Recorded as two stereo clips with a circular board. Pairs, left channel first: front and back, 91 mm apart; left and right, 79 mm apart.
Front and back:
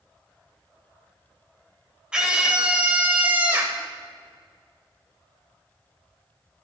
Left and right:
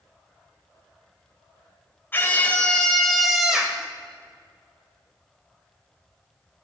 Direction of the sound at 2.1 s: 110° left.